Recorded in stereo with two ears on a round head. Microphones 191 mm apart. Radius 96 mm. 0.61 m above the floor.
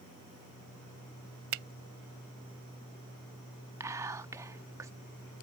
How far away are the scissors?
No scissors in this recording.